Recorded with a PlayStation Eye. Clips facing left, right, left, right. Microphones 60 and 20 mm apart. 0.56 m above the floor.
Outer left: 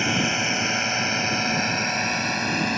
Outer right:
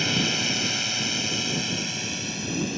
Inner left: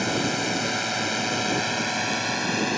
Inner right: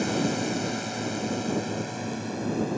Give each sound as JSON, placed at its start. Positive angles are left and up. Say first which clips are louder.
{"t": 0.0, "sound": "a drone", "louder": "outer left 3 dB, inner left 2 dB", "side_deg": 20}